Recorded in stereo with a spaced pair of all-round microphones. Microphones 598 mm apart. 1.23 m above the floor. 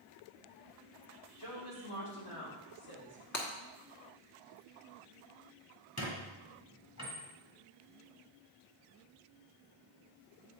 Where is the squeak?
25° left (ahead or behind), 2 m.